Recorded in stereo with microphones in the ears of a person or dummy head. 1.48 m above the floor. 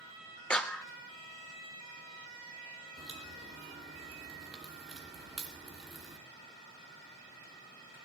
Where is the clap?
5° left (ahead or behind), 0.7 m.